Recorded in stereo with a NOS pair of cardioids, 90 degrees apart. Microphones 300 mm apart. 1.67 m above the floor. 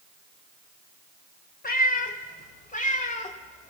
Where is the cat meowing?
30° left, 4.5 m; by 3.7 s 25° left, 2.5 m.